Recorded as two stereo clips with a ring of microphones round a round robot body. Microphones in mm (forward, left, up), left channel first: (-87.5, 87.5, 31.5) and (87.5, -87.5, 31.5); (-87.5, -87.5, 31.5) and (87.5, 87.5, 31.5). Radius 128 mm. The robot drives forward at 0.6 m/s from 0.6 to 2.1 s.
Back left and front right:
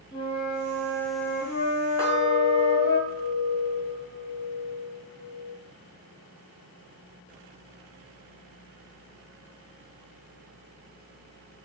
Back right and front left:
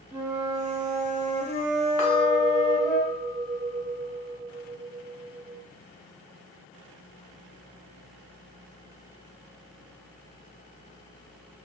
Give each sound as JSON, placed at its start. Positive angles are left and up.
{"t": 0.1, "sound": "a flute", "azimuth_deg": 110, "distance_m": 0.8}
{"t": 2.0, "sound": "a clink", "azimuth_deg": -145, "distance_m": 0.8}